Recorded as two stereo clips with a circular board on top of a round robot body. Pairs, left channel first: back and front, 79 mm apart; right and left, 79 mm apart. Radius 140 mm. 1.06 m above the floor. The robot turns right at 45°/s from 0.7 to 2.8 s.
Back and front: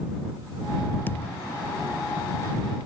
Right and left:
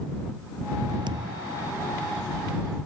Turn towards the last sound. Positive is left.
turn(degrees=-170)